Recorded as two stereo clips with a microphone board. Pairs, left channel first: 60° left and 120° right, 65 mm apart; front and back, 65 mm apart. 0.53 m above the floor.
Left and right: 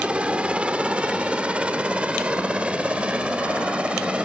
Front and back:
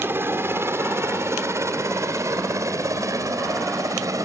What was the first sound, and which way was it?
A helicopter, straight behind.